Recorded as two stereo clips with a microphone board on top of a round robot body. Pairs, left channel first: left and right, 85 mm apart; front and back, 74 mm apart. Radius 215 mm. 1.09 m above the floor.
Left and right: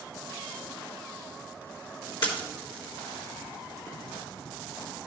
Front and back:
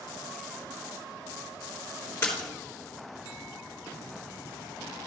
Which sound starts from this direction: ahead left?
A splash, at 2.2 s.